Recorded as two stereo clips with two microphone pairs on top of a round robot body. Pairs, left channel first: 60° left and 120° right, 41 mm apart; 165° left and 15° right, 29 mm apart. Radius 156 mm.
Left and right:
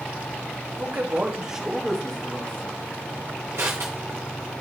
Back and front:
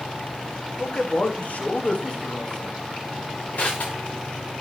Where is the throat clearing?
I don't hear throat clearing.